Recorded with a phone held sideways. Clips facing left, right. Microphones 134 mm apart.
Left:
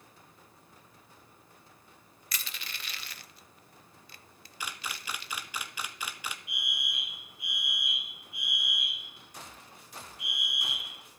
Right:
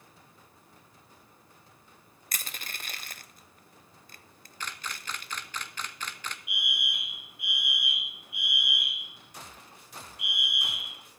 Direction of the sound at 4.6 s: 10° left (ahead or behind).